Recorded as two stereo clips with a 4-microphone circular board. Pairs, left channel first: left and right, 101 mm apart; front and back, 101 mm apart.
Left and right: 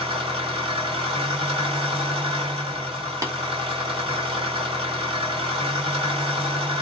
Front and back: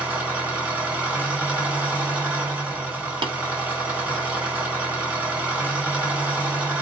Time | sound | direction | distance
0.0 | an engine running | 105° right | 1.9 m
3.2 | tapping | 145° right | 1.1 m